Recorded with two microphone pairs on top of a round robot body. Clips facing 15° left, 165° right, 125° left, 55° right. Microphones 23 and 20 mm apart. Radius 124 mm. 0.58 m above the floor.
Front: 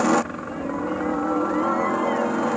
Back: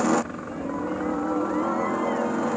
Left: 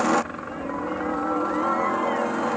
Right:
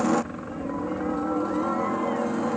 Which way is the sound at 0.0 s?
65° left.